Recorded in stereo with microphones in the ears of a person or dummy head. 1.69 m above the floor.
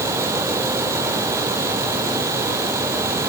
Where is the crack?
No crack in this recording.